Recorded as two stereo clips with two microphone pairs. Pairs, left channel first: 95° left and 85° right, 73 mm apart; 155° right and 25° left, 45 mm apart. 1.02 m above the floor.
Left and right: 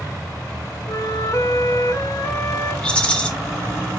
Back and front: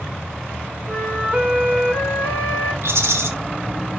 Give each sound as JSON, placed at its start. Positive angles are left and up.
{"t": 0.9, "sound": "a flute", "azimuth_deg": 75, "distance_m": 5.0}
{"t": 2.8, "sound": "a rattle", "azimuth_deg": 25, "distance_m": 1.7}